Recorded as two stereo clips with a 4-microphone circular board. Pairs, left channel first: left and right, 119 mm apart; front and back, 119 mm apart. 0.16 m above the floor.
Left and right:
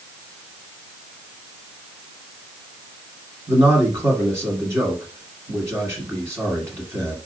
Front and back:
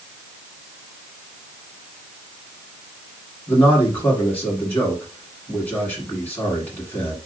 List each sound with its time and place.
3.5 s a man speaking: 55° right, 1.6 m